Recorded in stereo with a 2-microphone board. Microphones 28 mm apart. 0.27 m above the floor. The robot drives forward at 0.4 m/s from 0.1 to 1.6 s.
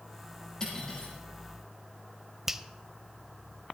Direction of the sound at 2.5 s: 15° right (ahead or behind).